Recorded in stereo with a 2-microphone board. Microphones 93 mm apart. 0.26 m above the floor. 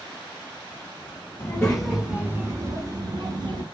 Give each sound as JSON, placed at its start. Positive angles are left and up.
{"t": 1.4, "sound": "a child speaking", "side_deg": 20, "distance_m": 0.8}